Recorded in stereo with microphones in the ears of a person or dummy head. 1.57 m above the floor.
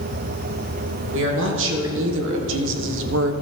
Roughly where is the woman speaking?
Right.